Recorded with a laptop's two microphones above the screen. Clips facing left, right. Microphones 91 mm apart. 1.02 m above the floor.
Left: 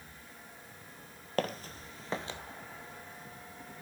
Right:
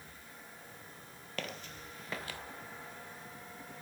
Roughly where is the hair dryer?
I don't hear a hair dryer.